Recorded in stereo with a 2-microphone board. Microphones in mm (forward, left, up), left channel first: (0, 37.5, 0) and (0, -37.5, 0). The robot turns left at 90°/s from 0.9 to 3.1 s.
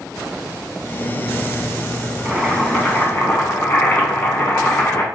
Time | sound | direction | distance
2.2 | boiling | 160° right | 1.2 m